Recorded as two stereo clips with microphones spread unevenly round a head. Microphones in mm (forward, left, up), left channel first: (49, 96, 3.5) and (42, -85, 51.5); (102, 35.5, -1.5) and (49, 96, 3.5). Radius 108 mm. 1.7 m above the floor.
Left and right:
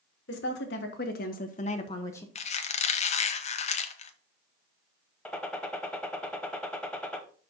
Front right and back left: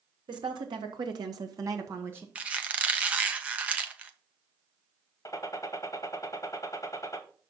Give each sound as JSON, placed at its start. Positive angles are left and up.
{"t": 0.3, "sound": "a woman speaking", "azimuth_deg": 130, "distance_m": 1.4}
{"t": 2.4, "sound": "a squeak", "azimuth_deg": 130, "distance_m": 0.5}
{"t": 5.2, "sound": "a gunshot", "azimuth_deg": -5, "distance_m": 1.1}